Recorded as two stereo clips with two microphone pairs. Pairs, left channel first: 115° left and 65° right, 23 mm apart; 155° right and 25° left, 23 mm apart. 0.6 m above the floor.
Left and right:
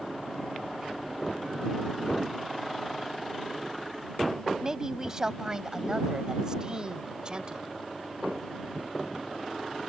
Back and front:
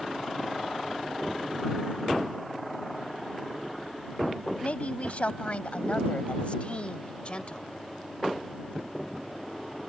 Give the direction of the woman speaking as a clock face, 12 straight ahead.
4 o'clock.